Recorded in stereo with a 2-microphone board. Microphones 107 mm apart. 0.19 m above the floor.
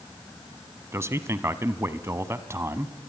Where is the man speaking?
25° right (ahead or behind), 1.1 m.